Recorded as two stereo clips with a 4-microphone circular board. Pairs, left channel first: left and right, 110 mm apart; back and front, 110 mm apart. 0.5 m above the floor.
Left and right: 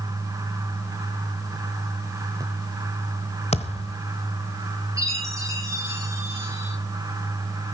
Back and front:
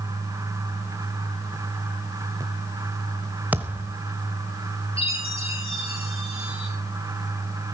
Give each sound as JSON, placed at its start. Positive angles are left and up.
{"t": 3.5, "sound": "a thud", "azimuth_deg": 75, "distance_m": 1.0}
{"t": 5.0, "sound": "a chime", "azimuth_deg": -150, "distance_m": 7.5}